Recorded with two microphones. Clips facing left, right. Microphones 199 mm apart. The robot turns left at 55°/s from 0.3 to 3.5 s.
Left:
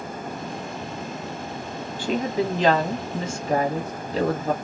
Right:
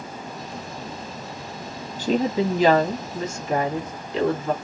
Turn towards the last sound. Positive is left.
turn(degrees=140)